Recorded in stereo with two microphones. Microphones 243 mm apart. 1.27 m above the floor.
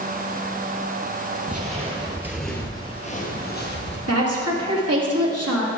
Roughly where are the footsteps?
Right.